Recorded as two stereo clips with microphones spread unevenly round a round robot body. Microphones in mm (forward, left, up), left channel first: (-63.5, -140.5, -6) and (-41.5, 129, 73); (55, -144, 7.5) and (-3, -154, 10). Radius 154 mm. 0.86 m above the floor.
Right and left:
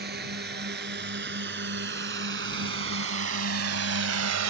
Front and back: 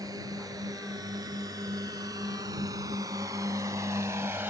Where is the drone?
140° left; by 4.5 s 110° left.